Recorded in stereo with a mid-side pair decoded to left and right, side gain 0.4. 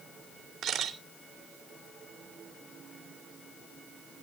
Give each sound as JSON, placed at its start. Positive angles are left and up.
{"t": 0.6, "sound": "a camera shutter", "azimuth_deg": -65, "distance_m": 2.5}